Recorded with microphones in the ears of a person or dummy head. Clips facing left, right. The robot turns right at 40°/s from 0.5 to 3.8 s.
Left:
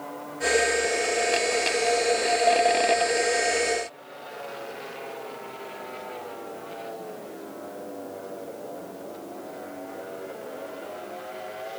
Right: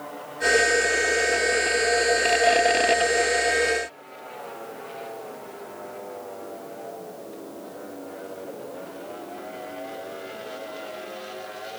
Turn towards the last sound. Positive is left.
No sound to turn to.